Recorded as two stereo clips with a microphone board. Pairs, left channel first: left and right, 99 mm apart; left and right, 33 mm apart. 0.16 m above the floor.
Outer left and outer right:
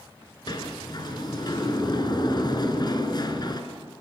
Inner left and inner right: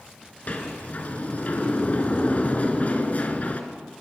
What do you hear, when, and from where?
0.5 s a sliding door: 45° left (ahead or behind), 2 m